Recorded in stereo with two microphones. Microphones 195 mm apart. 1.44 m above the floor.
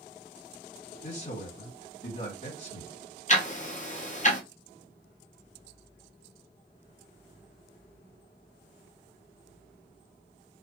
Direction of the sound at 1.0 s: 50° left (ahead or behind).